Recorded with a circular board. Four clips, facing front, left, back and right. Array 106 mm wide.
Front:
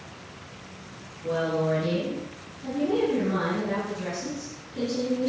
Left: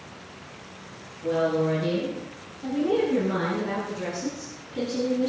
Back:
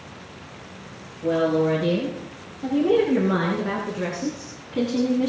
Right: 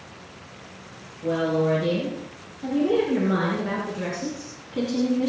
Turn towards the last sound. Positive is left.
turn(degrees=-160)